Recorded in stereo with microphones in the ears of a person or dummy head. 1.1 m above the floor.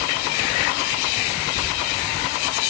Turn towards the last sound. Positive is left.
turn(degrees=75)  # may be behind; listen again after turning